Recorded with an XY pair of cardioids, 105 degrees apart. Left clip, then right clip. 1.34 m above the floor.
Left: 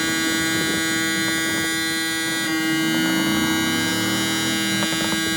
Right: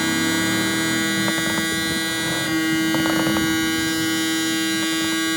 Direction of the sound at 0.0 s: Straight ahead.